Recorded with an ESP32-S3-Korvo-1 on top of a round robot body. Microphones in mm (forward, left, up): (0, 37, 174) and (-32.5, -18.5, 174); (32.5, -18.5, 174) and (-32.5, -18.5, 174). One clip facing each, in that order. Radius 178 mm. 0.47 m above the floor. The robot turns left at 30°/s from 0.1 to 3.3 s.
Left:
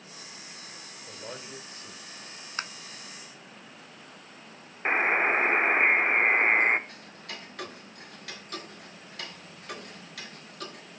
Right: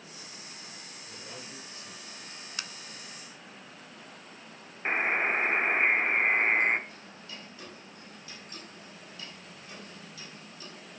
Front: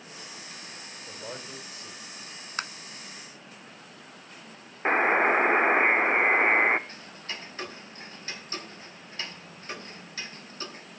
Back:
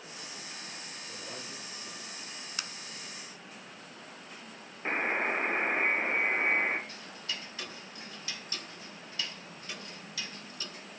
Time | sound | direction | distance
1.1 | a man speaking | 40° left | 3.5 m
2.6 | tapping | 20° left | 0.8 m
4.8 | a buzzer | 10° right | 0.6 m
6.9 | ticking | 50° left | 1.8 m